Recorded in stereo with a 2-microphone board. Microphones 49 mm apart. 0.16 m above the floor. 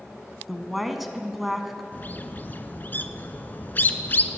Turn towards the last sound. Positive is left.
turn(degrees=40)  # may be behind; listen again after turning